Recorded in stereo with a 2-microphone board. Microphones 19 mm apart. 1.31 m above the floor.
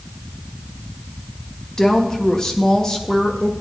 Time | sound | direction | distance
1.8 | a woman speaking | 30° left (ahead or behind) | 1.3 m